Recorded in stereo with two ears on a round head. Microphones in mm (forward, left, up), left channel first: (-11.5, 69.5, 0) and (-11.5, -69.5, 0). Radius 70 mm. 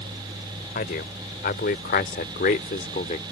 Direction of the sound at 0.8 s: 65° left (ahead or behind).